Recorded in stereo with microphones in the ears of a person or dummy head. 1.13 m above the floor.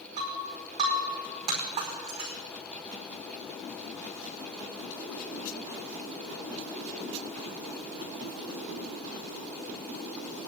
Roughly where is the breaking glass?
Right.